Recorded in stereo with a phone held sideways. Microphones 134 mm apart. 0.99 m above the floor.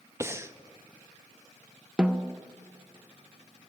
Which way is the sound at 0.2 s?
20° right (ahead or behind).